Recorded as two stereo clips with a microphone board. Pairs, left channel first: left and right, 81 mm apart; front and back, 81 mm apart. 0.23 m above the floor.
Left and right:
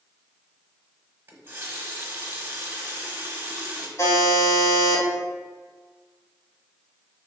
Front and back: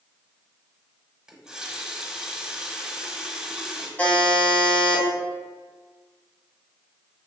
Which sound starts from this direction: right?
A running tap, at 1.3 s.